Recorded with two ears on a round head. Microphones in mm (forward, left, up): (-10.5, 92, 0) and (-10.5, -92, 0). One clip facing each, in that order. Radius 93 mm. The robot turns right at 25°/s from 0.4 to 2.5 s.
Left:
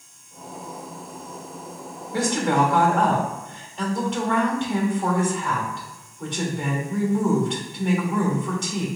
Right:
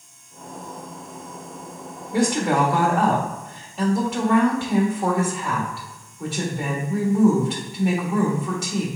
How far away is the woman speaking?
About 1.3 m.